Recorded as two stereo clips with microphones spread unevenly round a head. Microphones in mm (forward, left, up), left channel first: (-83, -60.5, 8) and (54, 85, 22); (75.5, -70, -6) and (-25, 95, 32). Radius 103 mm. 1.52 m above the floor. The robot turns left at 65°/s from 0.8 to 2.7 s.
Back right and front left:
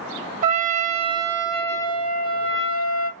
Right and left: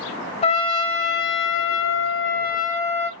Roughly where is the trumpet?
Ahead.